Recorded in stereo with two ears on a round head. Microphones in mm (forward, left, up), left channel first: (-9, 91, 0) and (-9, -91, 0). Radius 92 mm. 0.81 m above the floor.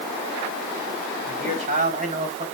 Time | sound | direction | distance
1.2 | a man speaking | 40° right (ahead or behind) | 5 m